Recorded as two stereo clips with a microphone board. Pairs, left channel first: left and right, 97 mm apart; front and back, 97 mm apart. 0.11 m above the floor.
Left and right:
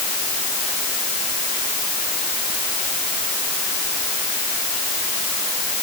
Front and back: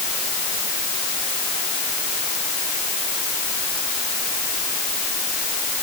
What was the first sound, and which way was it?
Only background noise.